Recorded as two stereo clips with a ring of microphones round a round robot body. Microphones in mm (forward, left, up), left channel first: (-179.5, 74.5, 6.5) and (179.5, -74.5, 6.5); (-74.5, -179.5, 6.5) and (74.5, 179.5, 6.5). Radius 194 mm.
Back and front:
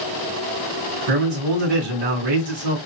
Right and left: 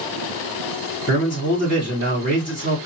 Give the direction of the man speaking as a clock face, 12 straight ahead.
1 o'clock.